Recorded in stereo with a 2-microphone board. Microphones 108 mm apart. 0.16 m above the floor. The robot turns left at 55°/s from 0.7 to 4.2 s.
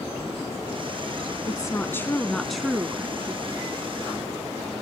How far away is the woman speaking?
About 1.2 m.